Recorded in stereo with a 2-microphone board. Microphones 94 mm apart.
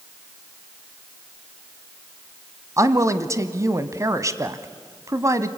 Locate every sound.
2.8 s a woman speaking: 35° right (ahead or behind), 1.1 m